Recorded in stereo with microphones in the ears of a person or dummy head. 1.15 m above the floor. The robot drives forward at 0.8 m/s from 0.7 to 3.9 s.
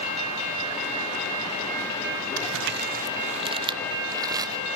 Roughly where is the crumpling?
Right.